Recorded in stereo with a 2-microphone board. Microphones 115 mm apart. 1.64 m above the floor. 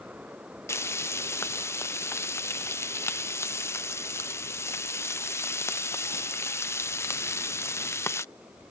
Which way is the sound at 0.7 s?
20° left (ahead or behind).